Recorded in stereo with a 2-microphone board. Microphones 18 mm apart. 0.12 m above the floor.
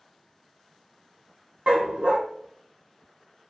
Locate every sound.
1.7 s a dog barking: 70° right (ahead or behind), 2.0 m